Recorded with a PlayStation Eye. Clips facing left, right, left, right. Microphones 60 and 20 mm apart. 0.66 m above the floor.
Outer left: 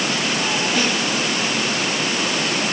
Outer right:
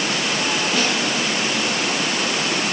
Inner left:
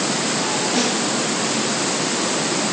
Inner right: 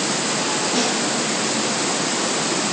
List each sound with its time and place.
0.7 s a snare drum: 5° left (ahead or behind), 5 m